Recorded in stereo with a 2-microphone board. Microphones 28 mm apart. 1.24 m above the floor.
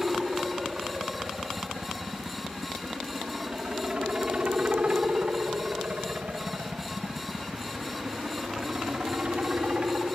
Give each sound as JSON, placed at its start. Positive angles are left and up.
{"t": 0.0, "sound": "a helicopter", "side_deg": -15}